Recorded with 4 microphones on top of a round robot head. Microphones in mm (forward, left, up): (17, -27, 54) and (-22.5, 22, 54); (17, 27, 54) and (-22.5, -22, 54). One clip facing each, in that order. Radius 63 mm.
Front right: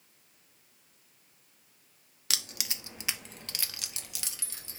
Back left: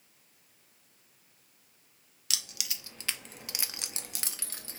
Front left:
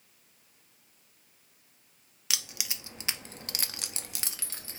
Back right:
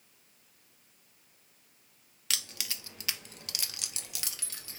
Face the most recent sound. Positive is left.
turn(degrees=105)